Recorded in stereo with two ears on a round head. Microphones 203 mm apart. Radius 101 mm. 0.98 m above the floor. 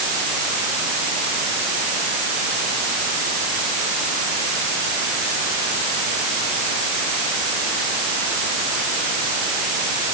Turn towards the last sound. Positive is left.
No sound to turn to.